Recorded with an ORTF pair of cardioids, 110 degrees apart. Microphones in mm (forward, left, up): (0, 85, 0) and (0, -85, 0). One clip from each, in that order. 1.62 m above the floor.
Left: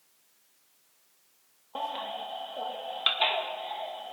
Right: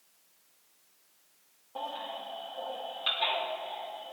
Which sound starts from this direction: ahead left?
A baby crying, at 1.8 s.